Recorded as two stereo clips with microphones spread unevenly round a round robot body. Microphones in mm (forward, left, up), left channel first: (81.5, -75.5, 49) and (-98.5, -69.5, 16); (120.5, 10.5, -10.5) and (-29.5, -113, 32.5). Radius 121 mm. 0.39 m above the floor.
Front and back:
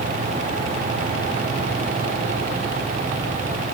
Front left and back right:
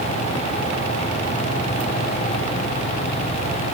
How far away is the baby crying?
I don't hear a baby crying.